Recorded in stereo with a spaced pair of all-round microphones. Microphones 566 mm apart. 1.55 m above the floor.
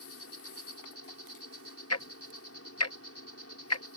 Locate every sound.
0.0 s an insect: 25° left (ahead or behind)
1.9 s ticking: 25° left (ahead or behind)